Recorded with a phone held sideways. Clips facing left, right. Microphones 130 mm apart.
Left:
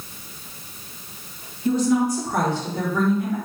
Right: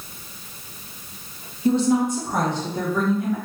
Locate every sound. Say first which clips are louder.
1.6 s a woman speaking: right 1 dB; 30° right (ahead or behind), 0.6 m; by 3.4 s 10° right (ahead or behind), 1.3 m